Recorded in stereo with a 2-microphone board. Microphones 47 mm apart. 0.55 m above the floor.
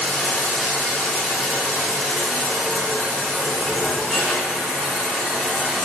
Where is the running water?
20° left (ahead or behind), 2 m.